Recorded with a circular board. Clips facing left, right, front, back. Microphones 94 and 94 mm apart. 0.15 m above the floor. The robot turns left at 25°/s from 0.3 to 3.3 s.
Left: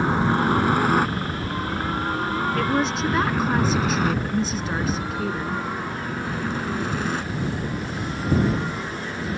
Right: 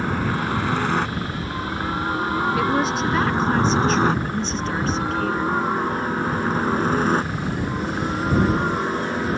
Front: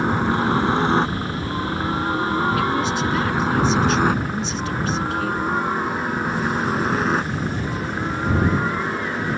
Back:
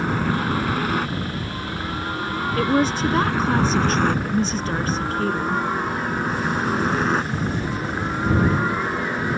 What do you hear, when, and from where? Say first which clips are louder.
0.0 s a helicopter: left 3 dB, front 3 dB; 45° left; by 9.4 s 100° right
2.6 s a woman speaking: right 2 dB, back 1 dB; 170° right; by 5.6 s 170° left